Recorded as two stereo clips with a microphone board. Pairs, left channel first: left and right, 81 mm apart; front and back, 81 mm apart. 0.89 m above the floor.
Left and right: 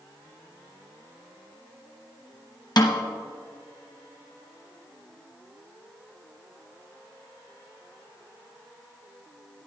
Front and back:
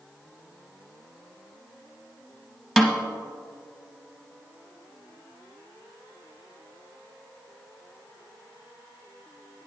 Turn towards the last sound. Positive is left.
turn(degrees=90)